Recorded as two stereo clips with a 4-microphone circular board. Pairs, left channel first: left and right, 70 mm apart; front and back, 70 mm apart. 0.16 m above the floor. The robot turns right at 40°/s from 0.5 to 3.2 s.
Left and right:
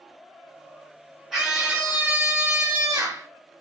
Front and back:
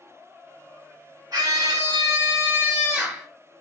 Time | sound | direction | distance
1.3 | a scream | 175° right | 3 m